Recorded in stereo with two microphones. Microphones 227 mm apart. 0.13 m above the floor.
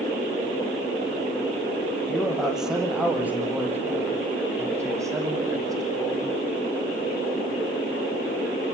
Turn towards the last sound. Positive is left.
turn(degrees=-15)  # may be behind; listen again after turning